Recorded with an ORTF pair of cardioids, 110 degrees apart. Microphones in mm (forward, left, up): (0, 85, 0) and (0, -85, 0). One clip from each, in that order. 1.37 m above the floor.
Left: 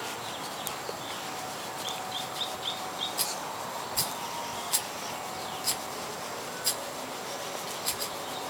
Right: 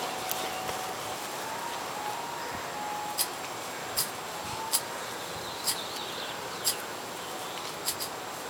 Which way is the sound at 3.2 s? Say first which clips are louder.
Left 1 dB; straight ahead.